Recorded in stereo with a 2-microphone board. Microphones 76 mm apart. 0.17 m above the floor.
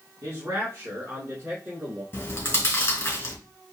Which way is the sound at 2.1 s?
30° left (ahead or behind).